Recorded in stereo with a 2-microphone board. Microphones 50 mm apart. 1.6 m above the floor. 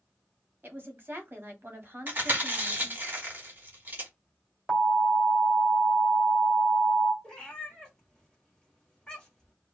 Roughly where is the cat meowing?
Centre.